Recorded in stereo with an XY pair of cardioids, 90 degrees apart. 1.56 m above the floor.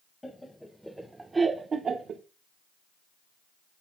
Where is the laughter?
15° left, 1.4 m; by 2.2 s 70° right, 1.3 m.